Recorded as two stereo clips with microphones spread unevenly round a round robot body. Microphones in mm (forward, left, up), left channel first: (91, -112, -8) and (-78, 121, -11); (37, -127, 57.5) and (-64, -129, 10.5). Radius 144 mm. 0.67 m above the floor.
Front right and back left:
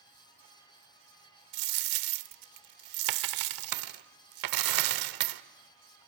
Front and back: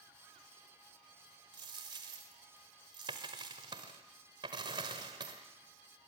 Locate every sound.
1.5 s a dropped coin: 110° left, 0.9 m